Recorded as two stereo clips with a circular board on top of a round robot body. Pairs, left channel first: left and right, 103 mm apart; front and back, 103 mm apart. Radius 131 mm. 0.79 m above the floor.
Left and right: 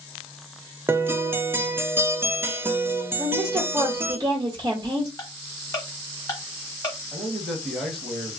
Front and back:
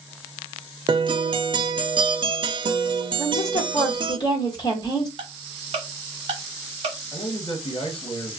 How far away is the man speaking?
About 1.2 m.